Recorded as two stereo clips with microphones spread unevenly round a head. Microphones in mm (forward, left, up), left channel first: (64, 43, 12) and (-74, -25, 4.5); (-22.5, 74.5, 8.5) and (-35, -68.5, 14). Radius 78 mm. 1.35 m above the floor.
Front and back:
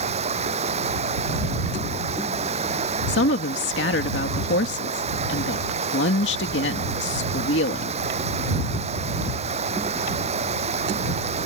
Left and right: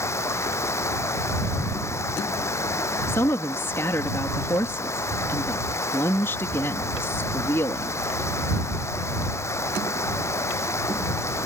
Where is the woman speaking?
10° left.